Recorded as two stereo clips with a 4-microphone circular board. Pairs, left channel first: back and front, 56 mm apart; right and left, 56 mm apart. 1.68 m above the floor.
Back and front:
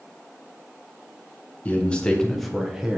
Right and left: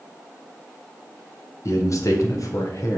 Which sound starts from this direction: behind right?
A man speaking, at 1.6 s.